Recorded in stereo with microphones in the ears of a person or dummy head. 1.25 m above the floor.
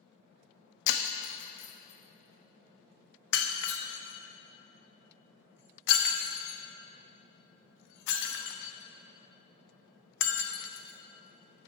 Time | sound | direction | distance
0.9 | breaking glass | 60° left (ahead or behind) | 1.0 m